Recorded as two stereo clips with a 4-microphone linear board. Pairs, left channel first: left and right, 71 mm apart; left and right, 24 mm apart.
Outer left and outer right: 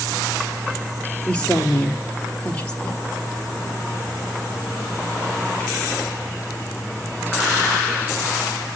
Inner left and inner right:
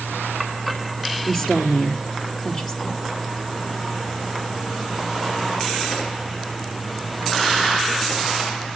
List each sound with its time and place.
1.3 s a woman speaking: 15° left (ahead or behind), 2.5 m